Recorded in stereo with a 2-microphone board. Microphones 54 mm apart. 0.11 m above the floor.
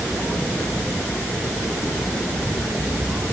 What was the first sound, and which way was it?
Only background noise.